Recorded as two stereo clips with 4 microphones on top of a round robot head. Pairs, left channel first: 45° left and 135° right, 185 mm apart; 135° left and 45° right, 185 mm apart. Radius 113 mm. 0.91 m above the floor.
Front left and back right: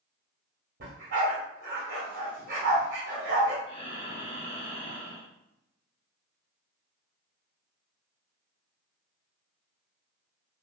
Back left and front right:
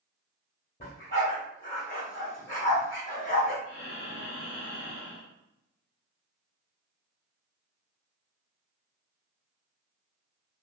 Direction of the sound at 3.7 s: 110° left.